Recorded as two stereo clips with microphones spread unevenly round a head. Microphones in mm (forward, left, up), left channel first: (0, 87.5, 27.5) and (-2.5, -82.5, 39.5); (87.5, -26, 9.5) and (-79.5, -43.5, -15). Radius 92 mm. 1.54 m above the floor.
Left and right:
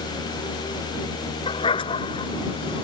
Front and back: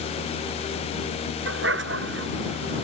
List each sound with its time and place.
1.5 s a dog barking: 155° left; by 2.8 s 150° left